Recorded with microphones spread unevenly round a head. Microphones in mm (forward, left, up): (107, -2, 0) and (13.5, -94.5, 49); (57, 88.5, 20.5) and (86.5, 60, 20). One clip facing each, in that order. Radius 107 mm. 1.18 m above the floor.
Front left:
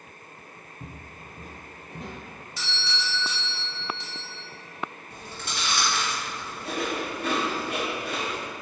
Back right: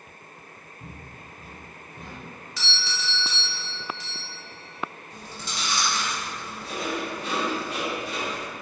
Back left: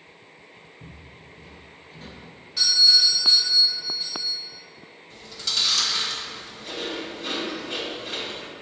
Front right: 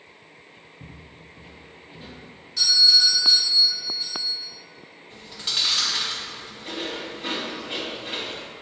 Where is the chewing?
20° left, 2.5 m.